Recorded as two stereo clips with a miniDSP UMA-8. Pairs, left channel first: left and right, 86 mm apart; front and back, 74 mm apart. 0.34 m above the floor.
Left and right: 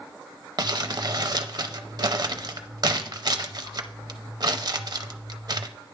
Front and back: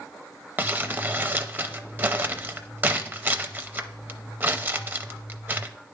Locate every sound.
0.6 s crumpling: 120° right, 0.5 m